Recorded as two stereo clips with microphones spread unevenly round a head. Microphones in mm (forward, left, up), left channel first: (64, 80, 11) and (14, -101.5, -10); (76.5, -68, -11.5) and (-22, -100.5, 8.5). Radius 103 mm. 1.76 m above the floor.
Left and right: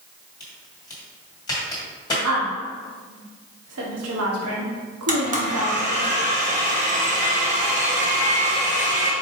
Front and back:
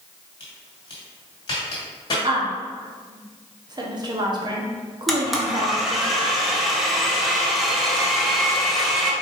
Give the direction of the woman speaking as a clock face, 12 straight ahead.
4 o'clock.